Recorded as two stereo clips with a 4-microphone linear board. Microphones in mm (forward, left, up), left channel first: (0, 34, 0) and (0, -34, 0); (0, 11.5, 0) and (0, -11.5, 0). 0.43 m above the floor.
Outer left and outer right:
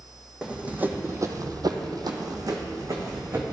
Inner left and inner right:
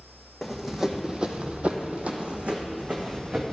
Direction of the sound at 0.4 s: 15° right (ahead or behind).